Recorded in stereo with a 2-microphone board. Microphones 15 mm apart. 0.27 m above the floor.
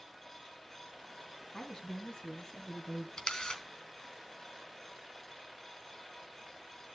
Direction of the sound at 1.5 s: 55° left (ahead or behind).